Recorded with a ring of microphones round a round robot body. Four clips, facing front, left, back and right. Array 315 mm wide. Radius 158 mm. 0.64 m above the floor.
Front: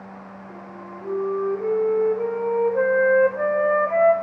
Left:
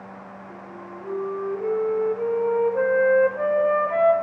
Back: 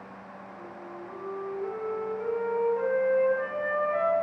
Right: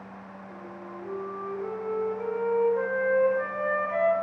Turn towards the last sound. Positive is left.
turn(degrees=30)